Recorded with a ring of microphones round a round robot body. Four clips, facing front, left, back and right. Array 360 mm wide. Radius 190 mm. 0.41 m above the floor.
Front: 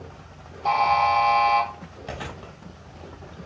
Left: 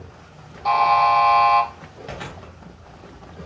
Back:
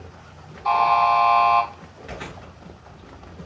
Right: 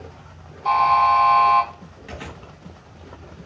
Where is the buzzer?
40° left, 2.5 m.